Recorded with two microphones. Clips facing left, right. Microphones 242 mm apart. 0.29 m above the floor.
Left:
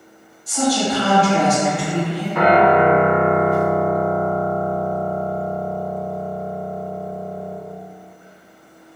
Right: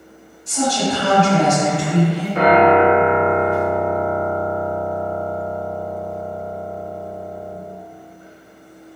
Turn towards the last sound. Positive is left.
turn(degrees=-30)  # may be behind; listen again after turning